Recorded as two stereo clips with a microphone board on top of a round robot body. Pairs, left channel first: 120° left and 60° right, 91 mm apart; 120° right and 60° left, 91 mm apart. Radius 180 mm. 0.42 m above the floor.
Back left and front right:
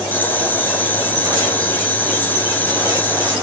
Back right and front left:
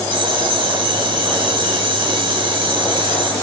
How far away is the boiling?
About 3 m.